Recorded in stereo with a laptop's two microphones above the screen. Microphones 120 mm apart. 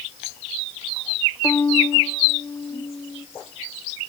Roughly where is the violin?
Left.